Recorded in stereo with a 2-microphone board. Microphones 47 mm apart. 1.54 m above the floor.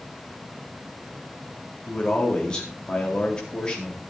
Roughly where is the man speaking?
Centre.